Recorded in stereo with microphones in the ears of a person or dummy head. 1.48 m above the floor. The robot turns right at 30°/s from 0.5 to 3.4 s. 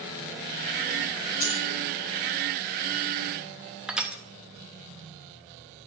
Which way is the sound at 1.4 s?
35° left (ahead or behind).